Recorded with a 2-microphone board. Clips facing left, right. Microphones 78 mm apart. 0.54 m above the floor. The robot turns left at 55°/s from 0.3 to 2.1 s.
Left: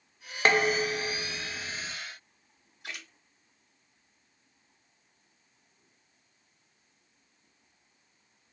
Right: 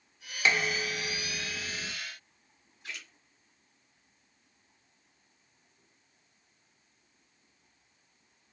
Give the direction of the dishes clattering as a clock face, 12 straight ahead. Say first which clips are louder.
Left 4 dB; 10 o'clock.